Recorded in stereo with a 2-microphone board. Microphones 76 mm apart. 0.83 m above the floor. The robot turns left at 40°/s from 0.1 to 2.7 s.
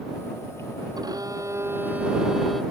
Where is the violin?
120° right; by 2.6 s 175° left.